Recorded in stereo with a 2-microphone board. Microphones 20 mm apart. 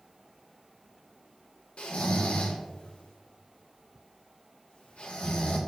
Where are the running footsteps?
No running footsteps in this recording.